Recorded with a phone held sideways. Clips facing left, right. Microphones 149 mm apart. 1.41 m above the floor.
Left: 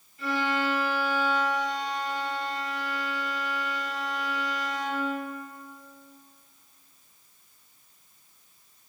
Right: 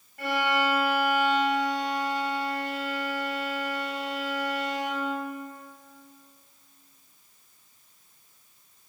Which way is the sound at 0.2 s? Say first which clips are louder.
Right 2 dB; 75° right (ahead or behind).